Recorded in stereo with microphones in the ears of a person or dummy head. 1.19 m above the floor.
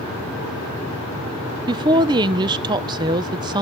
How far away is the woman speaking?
About 0.8 m.